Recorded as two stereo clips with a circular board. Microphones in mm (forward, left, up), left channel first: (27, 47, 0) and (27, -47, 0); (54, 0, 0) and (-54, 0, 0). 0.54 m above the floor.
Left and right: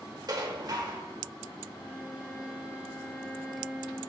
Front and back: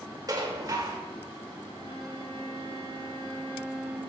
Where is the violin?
175° right, 1.7 m.